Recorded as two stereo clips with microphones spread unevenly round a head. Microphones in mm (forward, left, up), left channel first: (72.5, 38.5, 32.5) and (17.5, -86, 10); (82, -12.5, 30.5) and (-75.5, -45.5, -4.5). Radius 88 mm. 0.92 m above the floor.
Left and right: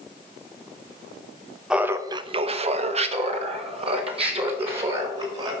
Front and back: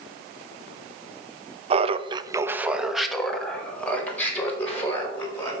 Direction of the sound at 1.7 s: 170° left.